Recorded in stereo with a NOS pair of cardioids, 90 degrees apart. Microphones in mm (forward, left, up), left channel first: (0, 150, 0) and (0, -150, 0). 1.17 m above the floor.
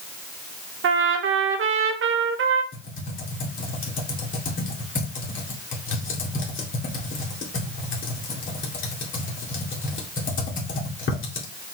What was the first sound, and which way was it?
A trumpet, 45° right.